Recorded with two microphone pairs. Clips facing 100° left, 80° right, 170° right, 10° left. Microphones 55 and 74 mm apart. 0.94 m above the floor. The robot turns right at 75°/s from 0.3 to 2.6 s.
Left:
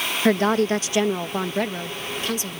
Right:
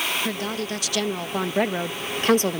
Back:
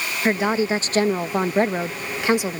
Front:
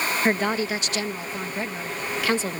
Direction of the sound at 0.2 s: 105° left.